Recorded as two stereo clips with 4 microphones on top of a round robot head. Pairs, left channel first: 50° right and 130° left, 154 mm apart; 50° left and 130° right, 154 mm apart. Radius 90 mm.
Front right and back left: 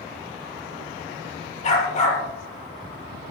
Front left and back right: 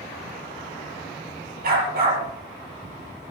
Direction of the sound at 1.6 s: 100° right.